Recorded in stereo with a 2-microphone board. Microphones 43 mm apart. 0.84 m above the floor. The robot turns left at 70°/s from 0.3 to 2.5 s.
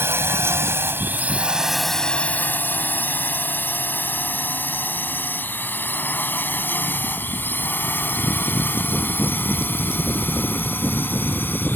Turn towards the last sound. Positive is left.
turn(degrees=55)  # may be behind; listen again after turning